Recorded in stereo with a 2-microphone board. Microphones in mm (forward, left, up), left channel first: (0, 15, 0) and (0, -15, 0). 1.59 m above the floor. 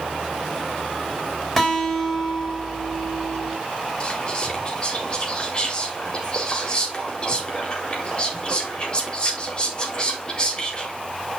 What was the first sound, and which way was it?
A guitar, 10° left (ahead or behind).